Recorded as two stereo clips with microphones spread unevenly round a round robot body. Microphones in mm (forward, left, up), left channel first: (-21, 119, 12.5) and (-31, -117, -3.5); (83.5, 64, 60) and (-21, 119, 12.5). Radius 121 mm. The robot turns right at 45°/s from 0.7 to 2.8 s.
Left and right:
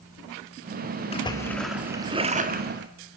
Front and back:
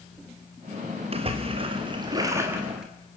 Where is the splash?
155° left, 1.8 m; by 2.9 s 130° right, 1.8 m.